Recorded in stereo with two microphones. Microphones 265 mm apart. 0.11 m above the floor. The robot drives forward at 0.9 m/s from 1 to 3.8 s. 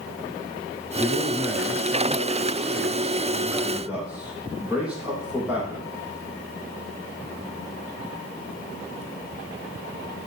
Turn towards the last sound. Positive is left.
turn(degrees=-5)  # may be behind; listen again after turning